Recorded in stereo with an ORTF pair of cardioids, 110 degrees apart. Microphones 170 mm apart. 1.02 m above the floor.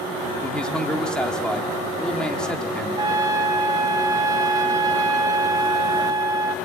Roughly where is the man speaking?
Ahead.